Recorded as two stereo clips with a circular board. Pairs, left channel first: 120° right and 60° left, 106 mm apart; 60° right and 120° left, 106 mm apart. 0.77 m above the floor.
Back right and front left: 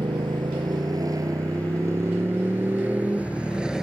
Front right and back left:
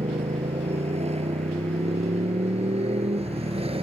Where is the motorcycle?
110° left; by 3.8 s 145° left.